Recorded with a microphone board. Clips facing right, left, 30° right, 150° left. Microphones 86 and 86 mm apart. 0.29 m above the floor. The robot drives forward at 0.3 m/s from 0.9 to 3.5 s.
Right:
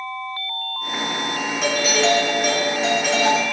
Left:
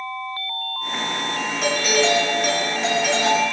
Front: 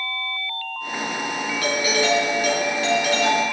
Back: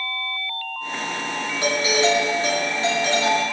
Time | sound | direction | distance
1.6 | a doorbell | straight behind | 1.9 m